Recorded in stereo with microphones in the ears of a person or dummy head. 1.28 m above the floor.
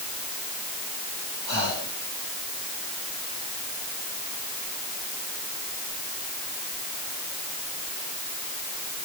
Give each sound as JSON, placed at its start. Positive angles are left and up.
{"t": 1.5, "sound": "breathing", "side_deg": 20, "distance_m": 4.5}